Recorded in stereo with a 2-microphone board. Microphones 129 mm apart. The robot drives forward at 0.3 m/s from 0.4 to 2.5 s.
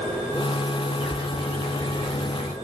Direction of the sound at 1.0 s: 25° left (ahead or behind).